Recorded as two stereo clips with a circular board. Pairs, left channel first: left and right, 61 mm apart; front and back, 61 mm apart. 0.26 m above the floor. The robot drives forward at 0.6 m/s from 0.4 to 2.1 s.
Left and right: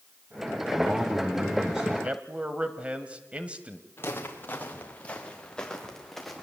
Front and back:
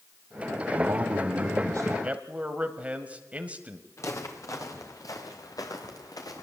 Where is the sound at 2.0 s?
135° right, 1.5 m.